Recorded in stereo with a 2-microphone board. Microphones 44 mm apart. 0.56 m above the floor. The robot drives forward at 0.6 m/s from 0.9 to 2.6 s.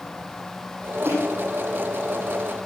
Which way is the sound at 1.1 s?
80° right.